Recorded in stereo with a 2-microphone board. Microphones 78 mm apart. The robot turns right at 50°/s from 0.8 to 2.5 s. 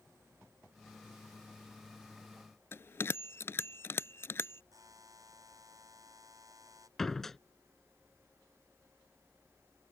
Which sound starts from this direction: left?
A bell, at 2.7 s.